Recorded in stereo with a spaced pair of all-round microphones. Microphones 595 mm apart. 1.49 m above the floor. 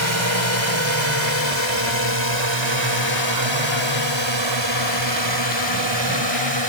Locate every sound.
0.0 s a drone: 50° right (ahead or behind); by 6.7 s 45° right (ahead or behind)